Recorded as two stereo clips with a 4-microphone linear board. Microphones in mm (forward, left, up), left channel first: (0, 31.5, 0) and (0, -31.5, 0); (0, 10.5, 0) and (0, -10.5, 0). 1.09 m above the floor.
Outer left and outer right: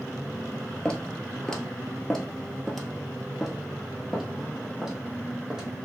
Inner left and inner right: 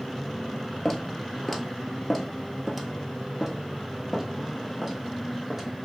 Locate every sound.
0.8 s footsteps: 10° left (ahead or behind), 1.1 m; by 5.7 s 10° right (ahead or behind), 2.5 m